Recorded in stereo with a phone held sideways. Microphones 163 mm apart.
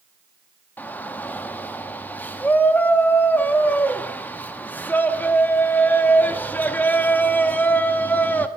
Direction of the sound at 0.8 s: 10° left (ahead or behind).